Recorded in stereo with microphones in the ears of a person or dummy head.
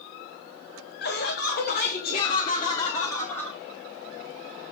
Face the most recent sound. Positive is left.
turn(degrees=10)  # may be behind; listen again after turning